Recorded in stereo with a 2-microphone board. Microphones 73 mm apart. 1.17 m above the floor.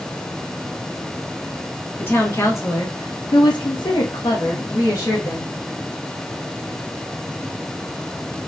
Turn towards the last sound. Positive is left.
turn(degrees=50)  # may be behind; listen again after turning